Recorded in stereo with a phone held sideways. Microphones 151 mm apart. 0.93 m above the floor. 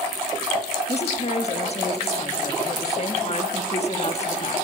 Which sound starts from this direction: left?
A woman speaking, at 0.9 s.